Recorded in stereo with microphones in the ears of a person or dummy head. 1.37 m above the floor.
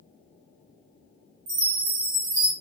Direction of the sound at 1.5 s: 55° right (ahead or behind).